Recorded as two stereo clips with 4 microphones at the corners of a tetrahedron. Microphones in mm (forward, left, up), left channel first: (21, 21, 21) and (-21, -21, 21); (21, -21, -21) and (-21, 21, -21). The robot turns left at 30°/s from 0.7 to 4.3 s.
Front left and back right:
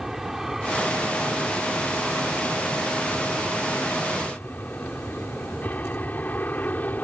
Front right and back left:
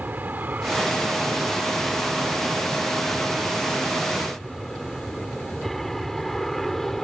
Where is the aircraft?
145° left; by 7.0 s 40° left.